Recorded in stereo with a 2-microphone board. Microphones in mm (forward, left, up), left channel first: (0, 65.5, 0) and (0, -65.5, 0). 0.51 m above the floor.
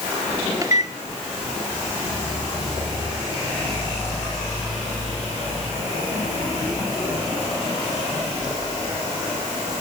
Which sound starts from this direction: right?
A microwave, at 0.6 s.